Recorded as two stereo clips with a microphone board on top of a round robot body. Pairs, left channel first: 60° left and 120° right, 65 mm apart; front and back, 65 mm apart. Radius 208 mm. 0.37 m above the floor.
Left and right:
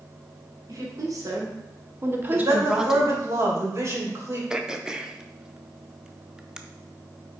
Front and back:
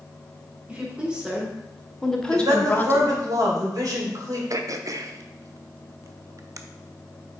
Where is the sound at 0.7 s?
110° right, 2 m; by 3.1 s 25° right, 1.4 m.